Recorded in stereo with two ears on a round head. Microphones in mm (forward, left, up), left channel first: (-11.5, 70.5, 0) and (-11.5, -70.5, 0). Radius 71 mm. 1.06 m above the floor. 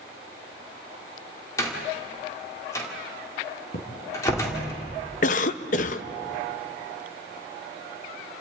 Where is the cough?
50° left (ahead or behind), 0.8 m.